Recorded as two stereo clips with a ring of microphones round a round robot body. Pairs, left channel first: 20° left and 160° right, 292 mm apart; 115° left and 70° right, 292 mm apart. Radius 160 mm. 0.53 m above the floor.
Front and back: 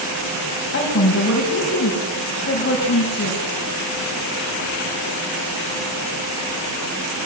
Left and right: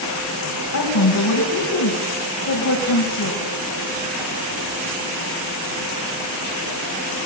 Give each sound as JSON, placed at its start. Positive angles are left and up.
{"t": 0.7, "sound": "a woman speaking", "azimuth_deg": 80, "distance_m": 4.0}